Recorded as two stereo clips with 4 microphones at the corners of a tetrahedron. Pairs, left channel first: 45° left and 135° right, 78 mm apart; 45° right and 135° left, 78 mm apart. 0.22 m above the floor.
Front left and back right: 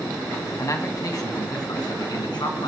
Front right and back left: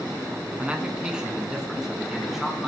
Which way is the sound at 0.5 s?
70° left.